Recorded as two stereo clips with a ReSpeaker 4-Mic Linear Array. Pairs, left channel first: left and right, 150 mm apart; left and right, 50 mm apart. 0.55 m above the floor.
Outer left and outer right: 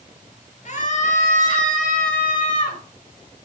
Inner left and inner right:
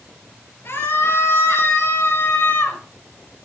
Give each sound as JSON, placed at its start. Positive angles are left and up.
{"t": 0.7, "sound": "a scream", "side_deg": 55, "distance_m": 5.0}